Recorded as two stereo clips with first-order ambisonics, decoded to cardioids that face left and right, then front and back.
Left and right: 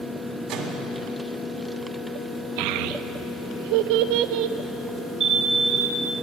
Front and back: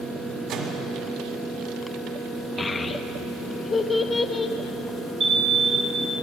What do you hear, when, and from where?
0.5 s a microwave: 140° right, 2 m
2.6 s a child speaking: 75° right, 0.7 m
5.2 s an alarm: 135° right, 1.3 m